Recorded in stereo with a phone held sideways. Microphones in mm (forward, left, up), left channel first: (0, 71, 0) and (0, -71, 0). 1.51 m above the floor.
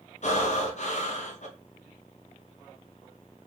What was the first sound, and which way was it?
Breathing, 55° left (ahead or behind).